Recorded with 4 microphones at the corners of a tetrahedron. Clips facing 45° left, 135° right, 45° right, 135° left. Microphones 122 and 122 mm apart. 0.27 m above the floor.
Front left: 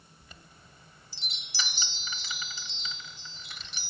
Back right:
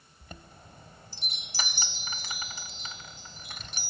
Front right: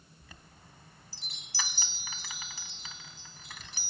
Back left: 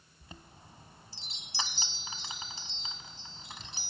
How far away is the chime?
About 0.7 m.